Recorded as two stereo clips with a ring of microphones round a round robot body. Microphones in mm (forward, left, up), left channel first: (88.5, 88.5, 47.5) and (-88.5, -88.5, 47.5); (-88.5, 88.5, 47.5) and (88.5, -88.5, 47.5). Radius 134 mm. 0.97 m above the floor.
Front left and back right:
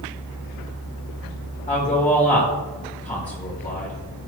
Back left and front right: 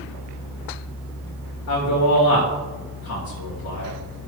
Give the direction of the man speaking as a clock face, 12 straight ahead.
8 o'clock.